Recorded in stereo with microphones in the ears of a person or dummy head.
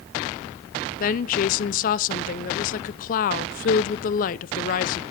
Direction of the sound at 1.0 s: 45° left (ahead or behind).